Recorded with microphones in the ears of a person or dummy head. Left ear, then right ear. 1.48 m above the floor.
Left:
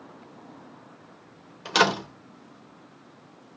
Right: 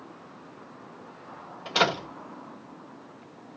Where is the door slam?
80° left, 3 m.